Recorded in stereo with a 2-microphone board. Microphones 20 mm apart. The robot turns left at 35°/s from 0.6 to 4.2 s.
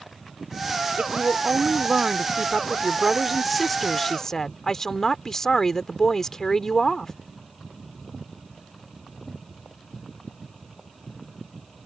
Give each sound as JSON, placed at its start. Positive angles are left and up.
{"t": 1.0, "sound": "a woman speaking", "azimuth_deg": -90}